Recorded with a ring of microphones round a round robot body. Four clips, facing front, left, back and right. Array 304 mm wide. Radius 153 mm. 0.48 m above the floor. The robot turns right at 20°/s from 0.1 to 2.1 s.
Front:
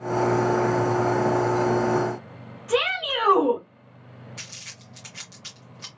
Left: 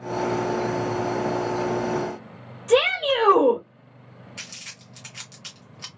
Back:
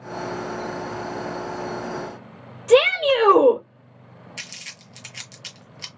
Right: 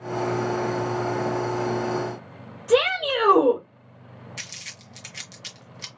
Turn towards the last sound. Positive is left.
turn(degrees=-140)